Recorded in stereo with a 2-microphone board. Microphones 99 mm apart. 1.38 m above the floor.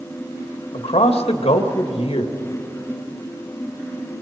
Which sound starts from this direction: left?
A man speaking, at 0.7 s.